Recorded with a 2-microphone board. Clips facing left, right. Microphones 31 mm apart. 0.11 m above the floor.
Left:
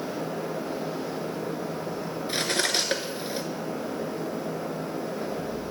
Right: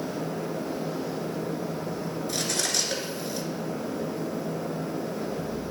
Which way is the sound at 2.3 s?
35° left (ahead or behind).